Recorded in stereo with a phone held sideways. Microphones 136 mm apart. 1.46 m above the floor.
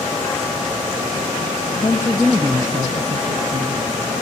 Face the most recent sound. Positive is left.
turn(degrees=-70)  # may be behind; listen again after turning